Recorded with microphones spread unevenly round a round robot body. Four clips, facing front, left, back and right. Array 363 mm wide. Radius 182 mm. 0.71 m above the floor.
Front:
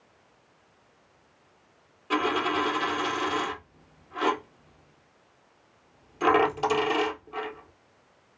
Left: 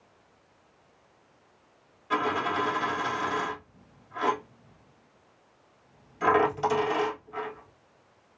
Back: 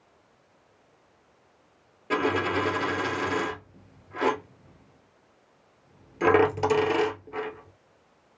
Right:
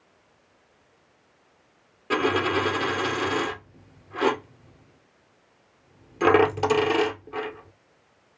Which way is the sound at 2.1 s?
115° right.